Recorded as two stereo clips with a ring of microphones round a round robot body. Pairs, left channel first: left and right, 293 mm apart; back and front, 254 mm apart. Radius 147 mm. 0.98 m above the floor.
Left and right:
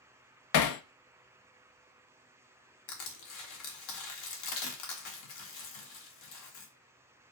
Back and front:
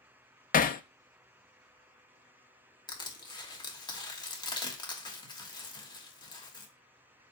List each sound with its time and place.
0.5 s hammering: 120° left, 0.6 m
2.9 s crushing: 105° left, 1.6 m